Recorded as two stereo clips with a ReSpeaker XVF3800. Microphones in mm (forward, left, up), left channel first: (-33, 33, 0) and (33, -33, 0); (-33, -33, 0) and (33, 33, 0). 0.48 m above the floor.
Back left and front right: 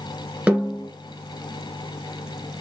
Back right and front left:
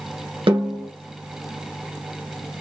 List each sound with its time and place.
0.5 s a snare drum: 30° left, 1.6 m